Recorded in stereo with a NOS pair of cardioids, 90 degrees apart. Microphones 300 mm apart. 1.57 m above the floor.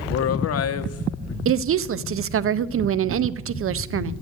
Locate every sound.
0.1 s a man speaking: 55° left, 1.2 m
1.4 s a woman speaking: 45° right, 0.7 m